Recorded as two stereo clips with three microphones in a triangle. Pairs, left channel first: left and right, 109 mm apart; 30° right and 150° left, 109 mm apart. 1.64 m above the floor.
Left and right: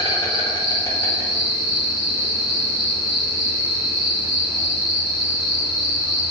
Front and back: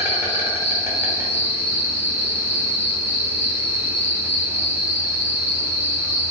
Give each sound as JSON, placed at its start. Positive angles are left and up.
{"t": 0.0, "sound": "an insect", "azimuth_deg": 95, "distance_m": 0.8}